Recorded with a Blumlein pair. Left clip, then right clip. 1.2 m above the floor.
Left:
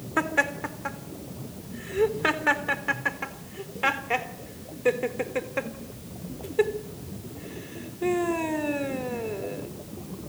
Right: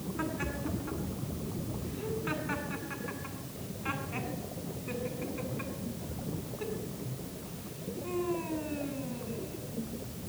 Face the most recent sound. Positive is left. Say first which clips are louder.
# left 13 dB
turn(degrees=45)